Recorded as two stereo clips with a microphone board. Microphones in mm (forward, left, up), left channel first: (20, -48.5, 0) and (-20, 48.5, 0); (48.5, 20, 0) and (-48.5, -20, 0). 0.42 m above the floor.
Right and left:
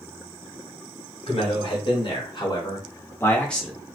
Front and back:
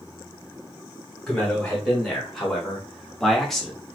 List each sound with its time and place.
1.3 s a man speaking: 60° right, 1.8 m; by 4.0 s 110° left, 0.8 m